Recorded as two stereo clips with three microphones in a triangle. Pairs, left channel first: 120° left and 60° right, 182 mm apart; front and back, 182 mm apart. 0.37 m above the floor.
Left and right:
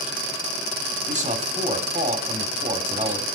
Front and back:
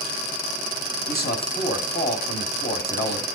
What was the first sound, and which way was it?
A man speaking, 15° right.